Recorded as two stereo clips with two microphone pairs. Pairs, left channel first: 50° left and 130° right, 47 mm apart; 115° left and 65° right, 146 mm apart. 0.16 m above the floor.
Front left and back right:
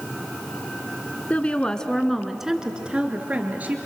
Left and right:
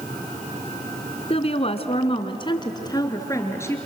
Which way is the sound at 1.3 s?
95° left.